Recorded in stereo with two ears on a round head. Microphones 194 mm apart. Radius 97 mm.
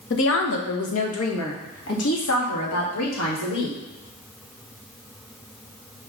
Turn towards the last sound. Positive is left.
turn(degrees=80)